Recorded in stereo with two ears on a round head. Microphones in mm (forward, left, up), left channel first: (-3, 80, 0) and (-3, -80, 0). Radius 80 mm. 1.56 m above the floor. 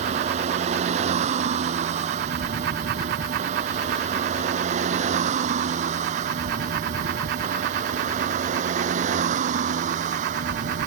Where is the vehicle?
40° right (ahead or behind).